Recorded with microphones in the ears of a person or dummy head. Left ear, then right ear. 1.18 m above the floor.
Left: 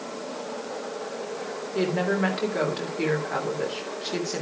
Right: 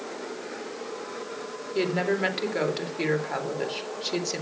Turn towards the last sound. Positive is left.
turn(degrees=-30)  # may be behind; listen again after turning